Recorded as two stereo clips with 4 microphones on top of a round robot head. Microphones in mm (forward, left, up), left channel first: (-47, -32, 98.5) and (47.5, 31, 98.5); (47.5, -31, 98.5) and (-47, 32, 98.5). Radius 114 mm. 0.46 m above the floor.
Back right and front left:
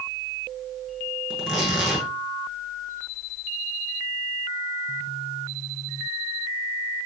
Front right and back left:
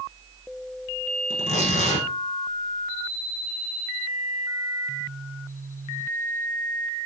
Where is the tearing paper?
55° right, 9 m.